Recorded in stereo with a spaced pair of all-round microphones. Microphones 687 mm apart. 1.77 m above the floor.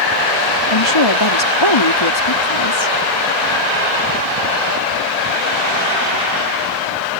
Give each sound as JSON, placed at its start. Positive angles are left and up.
{"t": 0.7, "sound": "a woman speaking", "side_deg": 40}